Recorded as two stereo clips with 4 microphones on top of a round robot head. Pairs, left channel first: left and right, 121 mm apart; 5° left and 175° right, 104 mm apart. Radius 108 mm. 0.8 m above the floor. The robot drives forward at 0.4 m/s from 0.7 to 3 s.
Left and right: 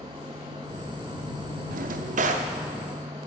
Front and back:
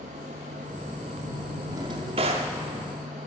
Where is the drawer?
105° right, 0.5 m; by 2.5 s 135° right, 0.7 m.